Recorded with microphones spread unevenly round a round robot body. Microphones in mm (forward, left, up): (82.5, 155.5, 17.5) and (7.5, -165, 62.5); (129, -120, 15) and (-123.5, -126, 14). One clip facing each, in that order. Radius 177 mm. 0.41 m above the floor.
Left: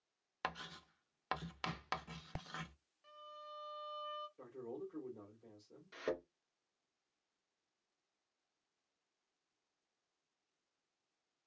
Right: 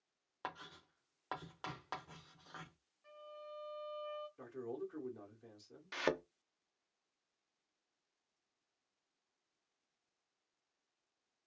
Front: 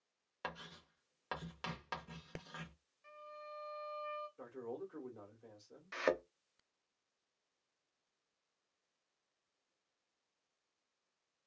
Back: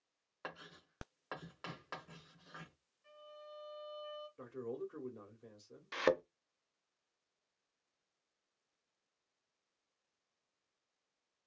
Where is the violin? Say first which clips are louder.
Right 5 dB, front 1 dB; 50° left, 1.3 m.